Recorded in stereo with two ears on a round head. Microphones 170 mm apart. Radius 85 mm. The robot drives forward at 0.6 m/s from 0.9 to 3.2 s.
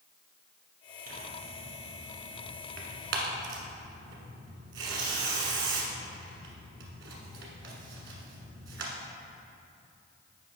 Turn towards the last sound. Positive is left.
turn(degrees=-70)  # may be behind; listen again after turning